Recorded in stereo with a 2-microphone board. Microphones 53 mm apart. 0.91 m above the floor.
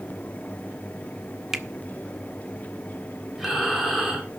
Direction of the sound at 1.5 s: 10° right (ahead or behind).